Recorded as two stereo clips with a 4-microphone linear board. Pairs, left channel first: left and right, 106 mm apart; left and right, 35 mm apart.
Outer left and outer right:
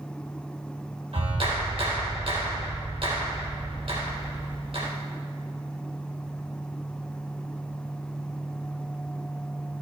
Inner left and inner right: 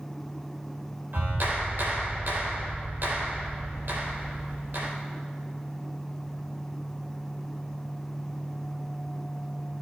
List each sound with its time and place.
1.1 s a clap: 65° right (ahead or behind), 3.5 m